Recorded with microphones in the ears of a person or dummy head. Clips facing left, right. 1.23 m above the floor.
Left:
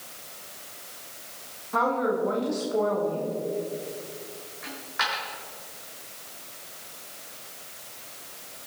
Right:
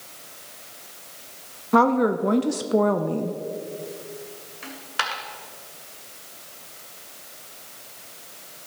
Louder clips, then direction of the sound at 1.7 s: Right 6 dB; 65° right (ahead or behind).